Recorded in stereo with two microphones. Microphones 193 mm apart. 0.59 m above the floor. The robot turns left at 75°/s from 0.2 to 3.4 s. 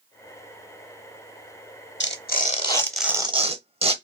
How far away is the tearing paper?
About 0.7 m.